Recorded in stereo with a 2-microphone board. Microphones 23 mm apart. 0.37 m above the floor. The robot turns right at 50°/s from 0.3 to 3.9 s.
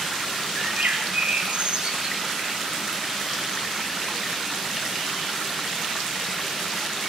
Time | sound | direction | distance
0.6 | a bird | 110° right | 7 m